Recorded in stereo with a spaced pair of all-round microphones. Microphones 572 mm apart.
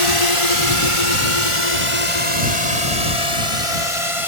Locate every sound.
0.0 s a drone: 65° left (ahead or behind); by 4.3 s 60° left (ahead or behind)